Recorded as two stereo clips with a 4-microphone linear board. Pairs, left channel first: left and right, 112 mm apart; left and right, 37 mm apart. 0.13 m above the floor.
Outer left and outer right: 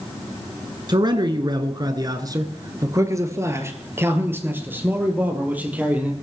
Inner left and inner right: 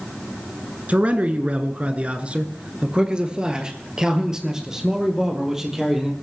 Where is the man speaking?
40° right (ahead or behind), 1.5 m; by 6.1 s 10° right (ahead or behind), 3.5 m.